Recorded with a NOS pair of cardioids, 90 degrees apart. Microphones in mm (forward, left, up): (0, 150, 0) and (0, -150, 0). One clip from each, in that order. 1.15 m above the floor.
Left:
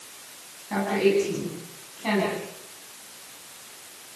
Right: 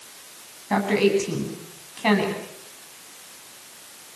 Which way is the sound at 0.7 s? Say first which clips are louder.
Right 2 dB; 65° right.